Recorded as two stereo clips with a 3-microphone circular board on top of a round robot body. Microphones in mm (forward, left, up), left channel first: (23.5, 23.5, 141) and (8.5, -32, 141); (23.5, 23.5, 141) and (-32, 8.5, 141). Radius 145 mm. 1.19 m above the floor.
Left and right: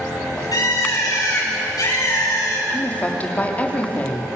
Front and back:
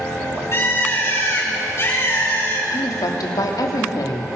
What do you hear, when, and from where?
0.5 s a bird: 60° left, 7.5 m
2.7 s a woman speaking: 10° left, 3.5 m